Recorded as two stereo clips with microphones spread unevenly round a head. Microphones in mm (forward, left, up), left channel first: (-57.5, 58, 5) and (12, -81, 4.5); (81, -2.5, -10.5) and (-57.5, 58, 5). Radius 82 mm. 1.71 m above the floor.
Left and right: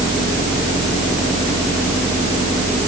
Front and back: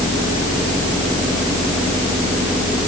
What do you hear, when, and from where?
Only background noise.